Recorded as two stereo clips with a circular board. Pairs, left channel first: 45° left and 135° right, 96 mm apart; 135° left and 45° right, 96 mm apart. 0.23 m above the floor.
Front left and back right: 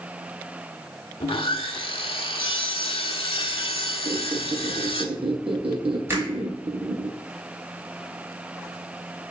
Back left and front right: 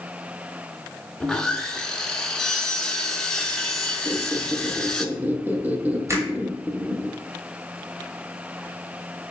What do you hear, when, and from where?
1.2 s sawing: 55° left, 0.6 m
4.0 s a squeak: 115° right, 1.0 m
6.1 s a finger snap: 85° right, 1.7 m